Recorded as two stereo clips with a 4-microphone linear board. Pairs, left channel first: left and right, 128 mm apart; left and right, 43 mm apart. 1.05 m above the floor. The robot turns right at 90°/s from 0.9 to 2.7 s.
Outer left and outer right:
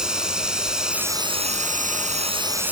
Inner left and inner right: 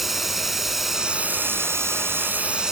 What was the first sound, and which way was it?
Running water, 175° right.